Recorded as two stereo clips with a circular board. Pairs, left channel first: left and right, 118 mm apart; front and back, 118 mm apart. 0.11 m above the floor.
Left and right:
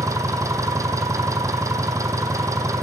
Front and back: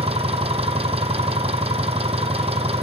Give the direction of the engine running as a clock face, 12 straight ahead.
5 o'clock.